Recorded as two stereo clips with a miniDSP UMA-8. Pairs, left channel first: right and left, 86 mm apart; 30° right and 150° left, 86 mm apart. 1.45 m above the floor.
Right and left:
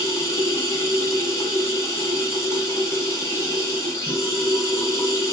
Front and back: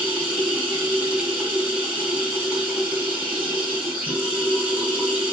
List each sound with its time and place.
0.0 s running water: 140° right, 2.5 m